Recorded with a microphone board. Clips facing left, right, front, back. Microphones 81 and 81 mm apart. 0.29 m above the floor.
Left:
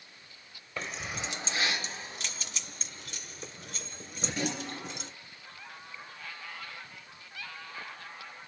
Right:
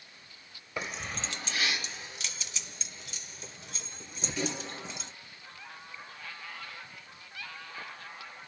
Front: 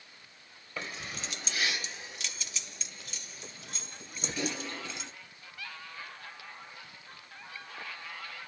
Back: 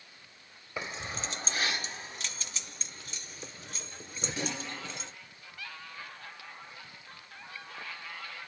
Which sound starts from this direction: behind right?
Keys jangling, at 0.8 s.